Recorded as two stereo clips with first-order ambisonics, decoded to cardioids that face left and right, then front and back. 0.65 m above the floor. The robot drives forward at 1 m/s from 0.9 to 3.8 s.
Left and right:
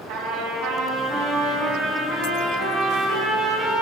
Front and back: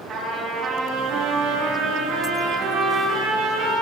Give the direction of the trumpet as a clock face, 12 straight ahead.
4 o'clock.